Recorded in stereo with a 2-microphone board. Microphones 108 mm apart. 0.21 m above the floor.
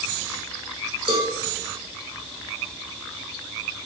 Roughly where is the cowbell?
Right.